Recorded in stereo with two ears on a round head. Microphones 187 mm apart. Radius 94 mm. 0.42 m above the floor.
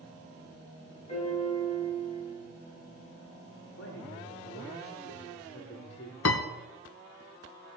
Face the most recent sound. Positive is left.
turn(degrees=75)  # may be behind; listen again after turning